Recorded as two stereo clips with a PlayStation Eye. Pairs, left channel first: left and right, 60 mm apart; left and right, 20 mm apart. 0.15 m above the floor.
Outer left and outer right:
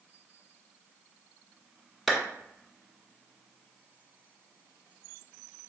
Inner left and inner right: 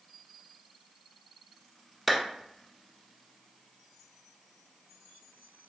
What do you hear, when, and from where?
2.1 s a clap: centre (ahead or behind), 0.9 m